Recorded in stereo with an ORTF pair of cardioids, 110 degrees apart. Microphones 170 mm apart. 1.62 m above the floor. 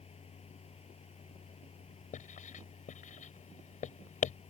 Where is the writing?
50° left.